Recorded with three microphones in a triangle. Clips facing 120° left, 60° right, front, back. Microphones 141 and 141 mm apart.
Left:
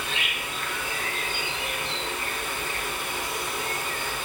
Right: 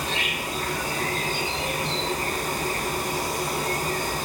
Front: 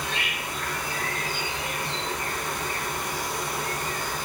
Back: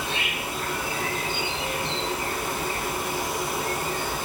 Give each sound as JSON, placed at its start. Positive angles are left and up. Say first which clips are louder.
{"t": 0.0, "sound": "an insect", "louder": "right 4 dB, back 2 dB", "azimuth_deg": -115, "distance_m": 1.5}